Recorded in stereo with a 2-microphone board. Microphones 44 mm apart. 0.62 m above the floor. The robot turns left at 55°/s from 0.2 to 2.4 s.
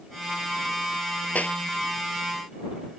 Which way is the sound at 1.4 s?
40° left (ahead or behind).